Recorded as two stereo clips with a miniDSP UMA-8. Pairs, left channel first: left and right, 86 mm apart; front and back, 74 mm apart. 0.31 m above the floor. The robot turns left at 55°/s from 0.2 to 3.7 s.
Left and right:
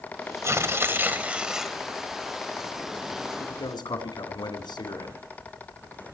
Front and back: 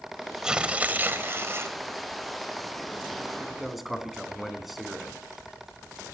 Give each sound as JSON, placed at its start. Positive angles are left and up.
{"t": 0.4, "sound": "tearing paper", "azimuth_deg": -105, "distance_m": 1.5}
{"t": 3.4, "sound": "a man speaking", "azimuth_deg": 110, "distance_m": 3.0}